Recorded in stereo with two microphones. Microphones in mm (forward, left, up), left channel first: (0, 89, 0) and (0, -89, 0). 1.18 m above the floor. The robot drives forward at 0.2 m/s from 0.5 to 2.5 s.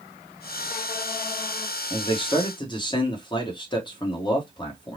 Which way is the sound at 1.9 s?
30° left (ahead or behind).